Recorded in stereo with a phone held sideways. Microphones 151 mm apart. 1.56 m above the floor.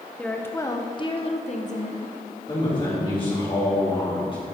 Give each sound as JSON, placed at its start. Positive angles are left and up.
{"t": 0.2, "sound": "a woman speaking", "side_deg": 5, "distance_m": 1.2}
{"t": 2.5, "sound": "a man speaking", "side_deg": 35, "distance_m": 3.5}